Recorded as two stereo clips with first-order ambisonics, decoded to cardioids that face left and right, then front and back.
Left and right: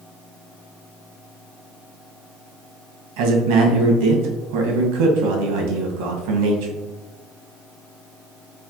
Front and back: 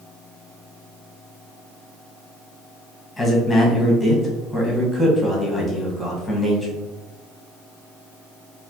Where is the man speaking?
85° right, 1.2 m.